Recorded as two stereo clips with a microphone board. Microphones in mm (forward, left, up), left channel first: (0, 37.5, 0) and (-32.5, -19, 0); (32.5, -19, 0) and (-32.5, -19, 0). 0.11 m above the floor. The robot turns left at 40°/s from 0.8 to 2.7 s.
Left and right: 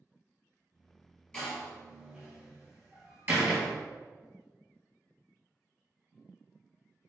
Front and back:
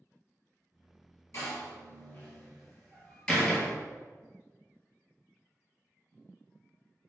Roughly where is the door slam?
Ahead.